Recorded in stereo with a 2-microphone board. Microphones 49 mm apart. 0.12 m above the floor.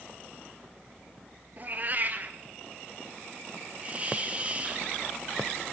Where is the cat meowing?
40° right (ahead or behind), 1.1 m.